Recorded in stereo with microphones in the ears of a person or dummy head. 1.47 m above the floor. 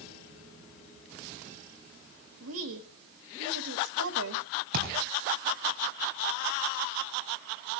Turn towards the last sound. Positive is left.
turn(degrees=-50)  # may be behind; listen again after turning